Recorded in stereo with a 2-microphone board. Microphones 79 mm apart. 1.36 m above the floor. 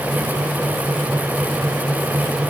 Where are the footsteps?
No footsteps in this recording.